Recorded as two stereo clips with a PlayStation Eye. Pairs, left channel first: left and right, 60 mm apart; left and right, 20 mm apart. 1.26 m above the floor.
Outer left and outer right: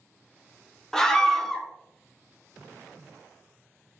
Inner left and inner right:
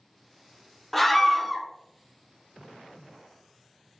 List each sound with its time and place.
0.9 s a scream: 10° left (ahead or behind), 0.5 m